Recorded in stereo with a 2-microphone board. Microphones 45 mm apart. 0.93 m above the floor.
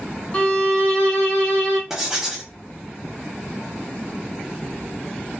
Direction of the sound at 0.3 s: 25° left (ahead or behind).